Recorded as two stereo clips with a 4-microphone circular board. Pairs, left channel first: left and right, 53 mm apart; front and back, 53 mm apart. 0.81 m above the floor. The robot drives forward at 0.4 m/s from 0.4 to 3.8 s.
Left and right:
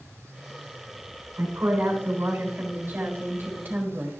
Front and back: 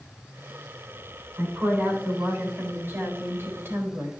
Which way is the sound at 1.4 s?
130° right.